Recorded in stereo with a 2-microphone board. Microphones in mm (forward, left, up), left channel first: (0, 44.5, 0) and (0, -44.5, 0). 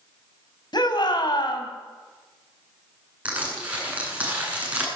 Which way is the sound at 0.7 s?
55° left (ahead or behind).